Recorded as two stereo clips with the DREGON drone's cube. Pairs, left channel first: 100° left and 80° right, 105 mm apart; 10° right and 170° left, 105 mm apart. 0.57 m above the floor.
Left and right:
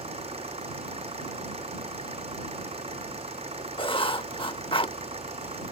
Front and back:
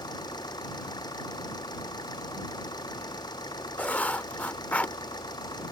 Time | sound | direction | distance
0.0 | an engine running | 60° right | ?
3.8 | writing | 65° left | ?